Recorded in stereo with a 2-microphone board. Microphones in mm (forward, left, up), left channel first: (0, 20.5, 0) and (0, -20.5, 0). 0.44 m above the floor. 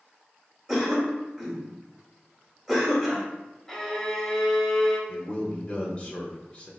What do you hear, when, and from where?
0.7 s a cough: 5° right (ahead or behind), 1.3 m
3.7 s a violin: 10° left (ahead or behind), 1.1 m
5.1 s a man speaking: 30° left (ahead or behind), 0.8 m